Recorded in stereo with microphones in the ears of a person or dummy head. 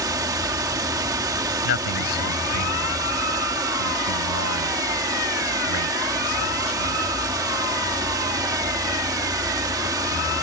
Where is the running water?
20° right (ahead or behind).